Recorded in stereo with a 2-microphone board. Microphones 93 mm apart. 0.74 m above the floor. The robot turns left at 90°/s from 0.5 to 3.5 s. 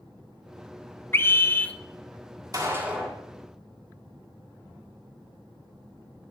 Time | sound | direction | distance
1.1 | a scream | 25° left (ahead or behind) | 0.6 m
2.5 | a gunshot | 135° right | 1.8 m